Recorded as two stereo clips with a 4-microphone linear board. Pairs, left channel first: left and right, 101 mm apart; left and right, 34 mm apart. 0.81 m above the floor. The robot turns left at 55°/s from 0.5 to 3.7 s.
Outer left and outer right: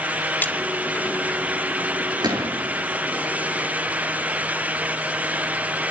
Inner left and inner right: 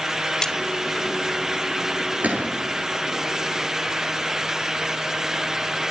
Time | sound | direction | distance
0.4 | a splash | 20° left (ahead or behind) | 1.1 m
2.2 | a gunshot | 45° right (ahead or behind) | 7 m